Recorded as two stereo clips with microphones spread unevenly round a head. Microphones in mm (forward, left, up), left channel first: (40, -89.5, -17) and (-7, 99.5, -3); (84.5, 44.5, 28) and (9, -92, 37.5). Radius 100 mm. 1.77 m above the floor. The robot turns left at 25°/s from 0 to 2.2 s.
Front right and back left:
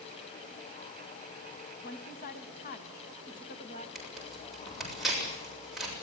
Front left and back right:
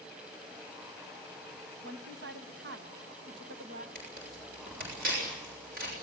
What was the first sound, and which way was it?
A woman speaking, 115° right.